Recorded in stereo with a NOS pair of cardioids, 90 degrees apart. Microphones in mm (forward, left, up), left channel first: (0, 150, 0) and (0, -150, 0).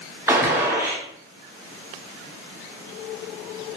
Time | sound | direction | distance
0.3 | a gunshot | 10° right | 0.8 m